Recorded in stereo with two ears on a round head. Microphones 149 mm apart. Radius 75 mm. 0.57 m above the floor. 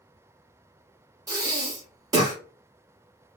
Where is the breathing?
20° right (ahead or behind), 1.1 m.